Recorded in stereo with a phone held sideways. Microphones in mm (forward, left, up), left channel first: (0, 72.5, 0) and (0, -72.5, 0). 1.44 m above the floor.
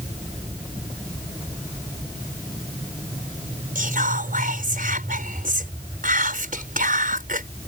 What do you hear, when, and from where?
3.8 s whispering: 75° right (ahead or behind)